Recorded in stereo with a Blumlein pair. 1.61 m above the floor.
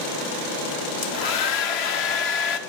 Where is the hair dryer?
45° left, 0.9 m.